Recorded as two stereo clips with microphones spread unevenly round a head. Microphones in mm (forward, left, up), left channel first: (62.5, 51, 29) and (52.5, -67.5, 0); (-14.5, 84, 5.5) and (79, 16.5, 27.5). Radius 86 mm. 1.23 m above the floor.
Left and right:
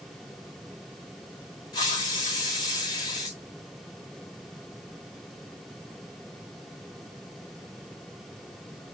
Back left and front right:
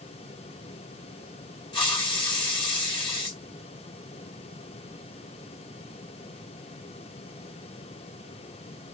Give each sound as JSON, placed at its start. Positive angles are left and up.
{"t": 1.7, "sound": "a hiss", "azimuth_deg": 155, "distance_m": 0.8}